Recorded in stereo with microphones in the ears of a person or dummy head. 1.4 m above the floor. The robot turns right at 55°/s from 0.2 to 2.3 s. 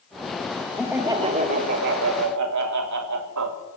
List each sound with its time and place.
0.8 s laughter: 175° left, 1.5 m; by 3.6 s 100° right, 1.5 m